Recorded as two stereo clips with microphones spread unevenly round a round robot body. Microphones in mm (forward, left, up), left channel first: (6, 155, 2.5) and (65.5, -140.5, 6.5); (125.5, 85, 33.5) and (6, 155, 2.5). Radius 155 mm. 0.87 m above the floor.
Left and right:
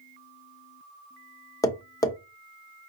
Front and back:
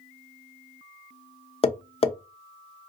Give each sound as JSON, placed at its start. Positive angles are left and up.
{"t": 1.6, "sound": "tapping", "azimuth_deg": 20, "distance_m": 0.8}